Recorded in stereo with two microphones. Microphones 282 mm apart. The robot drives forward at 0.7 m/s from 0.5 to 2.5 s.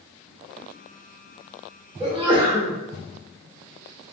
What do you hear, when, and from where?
2.0 s a sneeze: 20° right (ahead or behind), 0.8 m; by 2.7 s 15° right (ahead or behind), 1.0 m